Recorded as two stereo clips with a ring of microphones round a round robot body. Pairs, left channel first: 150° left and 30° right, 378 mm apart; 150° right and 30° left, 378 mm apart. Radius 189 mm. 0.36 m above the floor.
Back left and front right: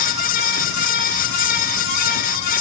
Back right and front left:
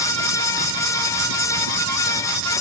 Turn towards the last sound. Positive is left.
No sound to turn to.